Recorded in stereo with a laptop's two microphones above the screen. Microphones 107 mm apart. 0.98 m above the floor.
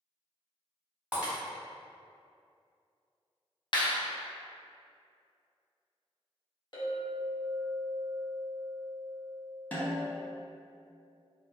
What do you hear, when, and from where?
1.1 s breaking glass: 10° right (ahead or behind), 1.5 m
3.7 s a clap: 45° left (ahead or behind), 0.7 m
6.7 s a clink: 45° left (ahead or behind), 1.0 m
9.7 s a snare drum: 15° left (ahead or behind), 0.7 m